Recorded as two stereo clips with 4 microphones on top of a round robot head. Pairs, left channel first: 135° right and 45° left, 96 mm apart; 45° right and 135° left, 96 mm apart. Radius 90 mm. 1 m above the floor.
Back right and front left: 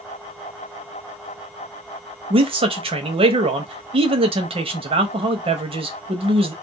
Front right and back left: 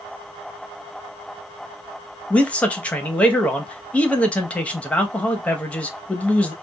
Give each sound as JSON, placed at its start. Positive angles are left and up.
{"t": 2.3, "sound": "a man speaking", "azimuth_deg": 30, "distance_m": 1.1}